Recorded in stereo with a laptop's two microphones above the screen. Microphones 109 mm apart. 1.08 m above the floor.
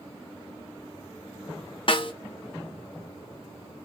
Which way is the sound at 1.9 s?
50° left (ahead or behind).